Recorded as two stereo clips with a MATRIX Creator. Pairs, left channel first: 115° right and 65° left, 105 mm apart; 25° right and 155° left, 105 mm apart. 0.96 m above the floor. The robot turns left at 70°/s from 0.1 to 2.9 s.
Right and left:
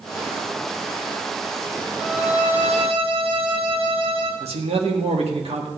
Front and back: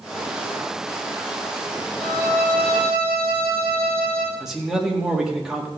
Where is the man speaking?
70° left, 1.8 m.